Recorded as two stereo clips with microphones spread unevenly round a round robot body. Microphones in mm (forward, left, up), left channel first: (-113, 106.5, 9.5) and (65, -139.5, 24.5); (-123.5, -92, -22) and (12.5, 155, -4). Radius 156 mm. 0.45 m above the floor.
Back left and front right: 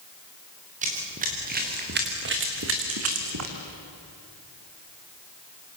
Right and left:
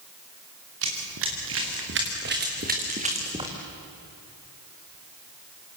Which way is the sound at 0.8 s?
15° left.